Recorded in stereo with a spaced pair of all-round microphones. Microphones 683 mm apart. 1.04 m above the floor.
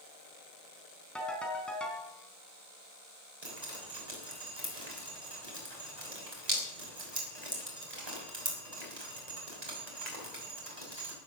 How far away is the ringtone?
About 3.5 m.